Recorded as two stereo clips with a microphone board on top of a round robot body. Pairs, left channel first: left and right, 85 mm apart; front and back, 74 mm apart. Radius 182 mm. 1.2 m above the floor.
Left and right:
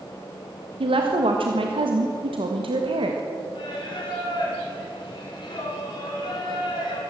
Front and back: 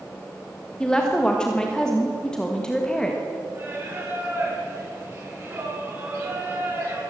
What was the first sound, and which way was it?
A woman speaking, 80° right.